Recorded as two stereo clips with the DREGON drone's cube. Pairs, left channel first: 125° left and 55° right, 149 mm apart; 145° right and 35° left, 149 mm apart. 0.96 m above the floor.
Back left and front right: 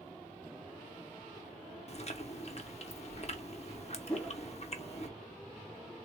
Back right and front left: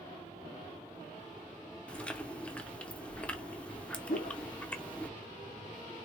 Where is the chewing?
135° left, 0.6 m.